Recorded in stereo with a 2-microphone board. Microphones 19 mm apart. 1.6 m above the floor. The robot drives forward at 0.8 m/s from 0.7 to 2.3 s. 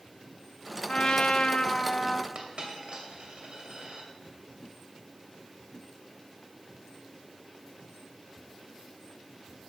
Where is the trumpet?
50° left (ahead or behind), 0.7 m; by 2.2 s 35° left (ahead or behind), 0.9 m.